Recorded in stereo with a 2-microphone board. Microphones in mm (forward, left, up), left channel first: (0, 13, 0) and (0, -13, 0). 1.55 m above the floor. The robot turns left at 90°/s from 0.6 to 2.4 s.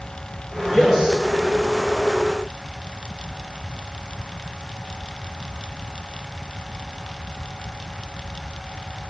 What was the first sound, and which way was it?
A man speaking, 20° left.